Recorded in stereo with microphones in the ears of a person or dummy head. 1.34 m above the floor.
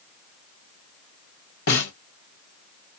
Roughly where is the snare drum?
Left.